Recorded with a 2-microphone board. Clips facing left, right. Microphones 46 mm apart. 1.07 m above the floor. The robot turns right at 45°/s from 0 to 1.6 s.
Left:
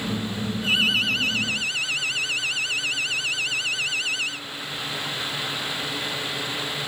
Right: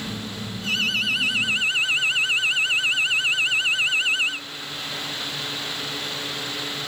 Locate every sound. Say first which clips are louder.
0.6 s an alarm: left 2 dB; 165° left; by 4.4 s 150° right